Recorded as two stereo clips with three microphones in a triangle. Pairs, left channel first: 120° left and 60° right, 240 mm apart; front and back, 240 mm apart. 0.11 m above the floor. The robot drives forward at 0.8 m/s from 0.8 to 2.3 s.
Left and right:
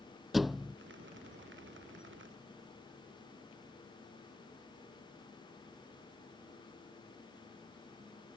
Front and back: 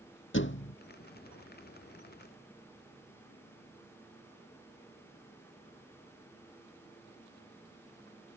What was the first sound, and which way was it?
A thud, 30° left.